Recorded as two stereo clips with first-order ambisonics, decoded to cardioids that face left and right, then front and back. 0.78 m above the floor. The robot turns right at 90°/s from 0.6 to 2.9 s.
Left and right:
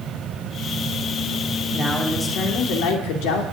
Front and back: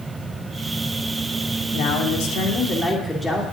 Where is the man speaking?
25° right, 2.5 m; by 3.4 s 80° left, 2.5 m.